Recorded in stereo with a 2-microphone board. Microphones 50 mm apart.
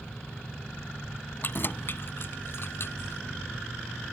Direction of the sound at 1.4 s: 45° left (ahead or behind).